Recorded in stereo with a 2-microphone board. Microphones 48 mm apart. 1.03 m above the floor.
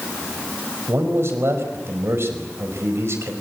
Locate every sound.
0.9 s a man speaking: 60° right (ahead or behind), 4 m